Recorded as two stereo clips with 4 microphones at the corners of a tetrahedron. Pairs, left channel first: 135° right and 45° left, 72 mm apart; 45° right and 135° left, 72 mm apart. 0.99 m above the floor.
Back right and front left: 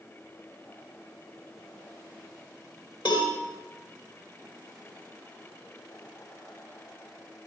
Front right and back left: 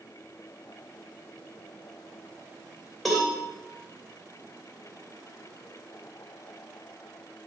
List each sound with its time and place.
3.0 s a cowbell: 135° right, 2.5 m